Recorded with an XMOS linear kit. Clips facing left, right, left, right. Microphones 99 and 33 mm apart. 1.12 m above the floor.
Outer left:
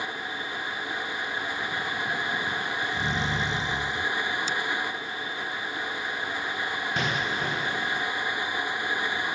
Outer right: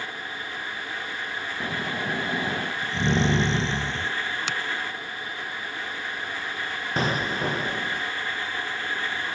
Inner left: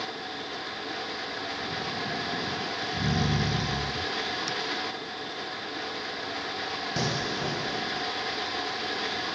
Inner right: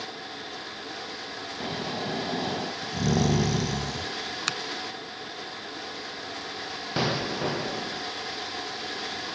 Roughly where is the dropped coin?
No dropped coin in this recording.